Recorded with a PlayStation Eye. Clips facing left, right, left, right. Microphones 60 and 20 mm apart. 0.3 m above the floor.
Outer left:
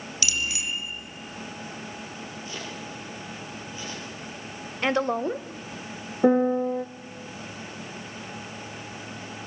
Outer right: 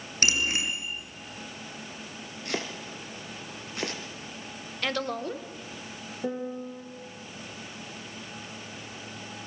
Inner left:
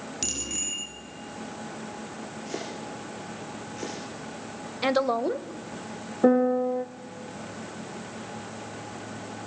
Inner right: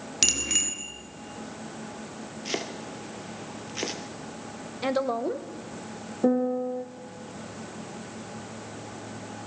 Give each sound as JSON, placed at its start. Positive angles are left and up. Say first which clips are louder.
{"t": 0.2, "sound": "a bicycle bell", "louder": "outer right 3 dB, inner right 8 dB", "side_deg": -45, "distance_m": 3.5}
{"t": 2.5, "sound": "chopping", "louder": "outer right 6 dB, inner right 4 dB", "side_deg": -75, "distance_m": 3.5}
{"t": 4.8, "sound": "a woman speaking", "louder": "outer left 6 dB, inner left 3 dB", "side_deg": 25, "distance_m": 1.1}
{"t": 6.2, "sound": "a piano", "louder": "outer left 13 dB, inner left 4 dB", "side_deg": 60, "distance_m": 1.1}